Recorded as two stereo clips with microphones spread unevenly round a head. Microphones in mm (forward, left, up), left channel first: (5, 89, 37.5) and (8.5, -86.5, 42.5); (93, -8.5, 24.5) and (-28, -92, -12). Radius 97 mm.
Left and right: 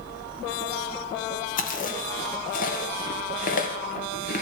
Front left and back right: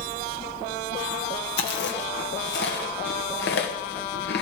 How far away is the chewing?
About 2.0 m.